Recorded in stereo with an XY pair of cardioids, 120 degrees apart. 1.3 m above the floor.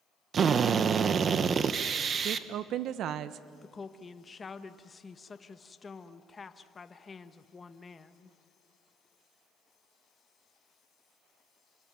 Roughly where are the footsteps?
I don't hear footsteps.